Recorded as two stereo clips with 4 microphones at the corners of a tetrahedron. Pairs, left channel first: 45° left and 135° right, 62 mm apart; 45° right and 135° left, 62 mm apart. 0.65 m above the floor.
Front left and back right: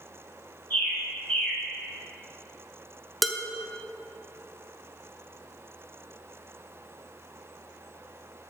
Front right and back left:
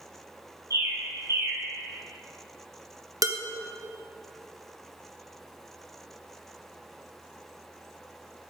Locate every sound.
0.7 s a bird: 110° left, 3.5 m
3.2 s dishes clattering: 130° left, 0.7 m